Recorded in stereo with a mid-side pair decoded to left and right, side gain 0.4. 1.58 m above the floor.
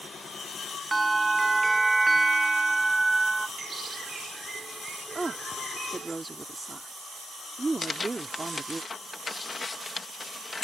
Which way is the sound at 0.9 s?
20° right.